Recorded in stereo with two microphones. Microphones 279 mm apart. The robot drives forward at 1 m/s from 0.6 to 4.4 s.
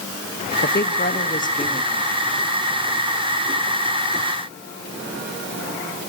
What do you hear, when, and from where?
0.6 s a woman speaking: 35° left (ahead or behind), 2 m; by 2.3 s 20° left (ahead or behind), 3.5 m